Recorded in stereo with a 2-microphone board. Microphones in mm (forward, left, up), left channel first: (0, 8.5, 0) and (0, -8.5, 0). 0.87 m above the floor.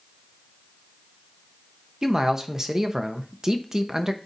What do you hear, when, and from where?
2.0 s a man speaking: 30° right (ahead or behind), 0.9 m